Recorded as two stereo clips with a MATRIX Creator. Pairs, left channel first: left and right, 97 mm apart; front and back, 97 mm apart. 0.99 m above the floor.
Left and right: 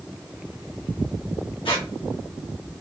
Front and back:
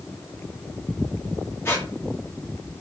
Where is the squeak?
65° left, 1.4 m.